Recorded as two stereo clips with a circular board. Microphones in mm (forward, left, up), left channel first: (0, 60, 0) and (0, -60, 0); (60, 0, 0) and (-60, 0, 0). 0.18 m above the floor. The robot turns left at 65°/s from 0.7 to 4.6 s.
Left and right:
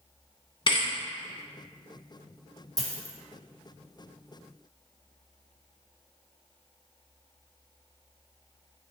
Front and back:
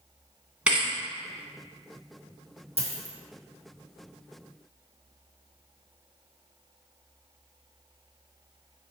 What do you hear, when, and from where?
0.7 s a thud: 105° left, 0.6 m; by 0.9 s 90° left, 0.6 m
2.8 s a dropped coin: 150° right, 0.8 m; by 3.2 s 175° right, 0.8 m